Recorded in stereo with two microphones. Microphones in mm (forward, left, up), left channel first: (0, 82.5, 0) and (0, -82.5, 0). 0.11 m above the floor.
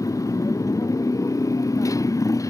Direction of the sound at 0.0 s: 20° left (ahead or behind).